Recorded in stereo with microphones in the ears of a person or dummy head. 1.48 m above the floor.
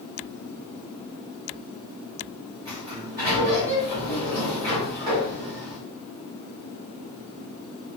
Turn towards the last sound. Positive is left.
turn(degrees=-30)  # may be behind; listen again after turning